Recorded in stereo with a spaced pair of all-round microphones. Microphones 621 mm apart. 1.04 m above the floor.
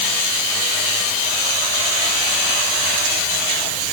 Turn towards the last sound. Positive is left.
No sound to turn to.